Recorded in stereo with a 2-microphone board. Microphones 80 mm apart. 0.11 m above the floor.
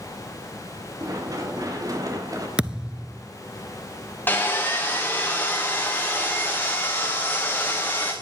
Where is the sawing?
25° left (ahead or behind), 4 m.